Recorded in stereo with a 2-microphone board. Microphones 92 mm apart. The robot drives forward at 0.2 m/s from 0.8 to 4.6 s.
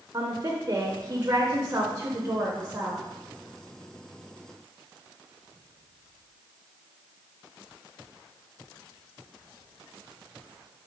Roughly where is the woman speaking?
Right.